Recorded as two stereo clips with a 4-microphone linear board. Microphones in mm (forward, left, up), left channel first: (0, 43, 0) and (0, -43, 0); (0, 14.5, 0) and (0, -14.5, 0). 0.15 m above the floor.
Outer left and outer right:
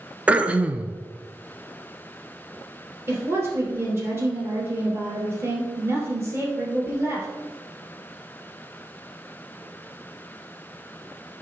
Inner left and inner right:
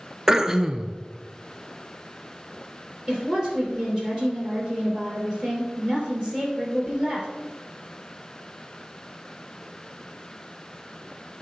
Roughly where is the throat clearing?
Centre.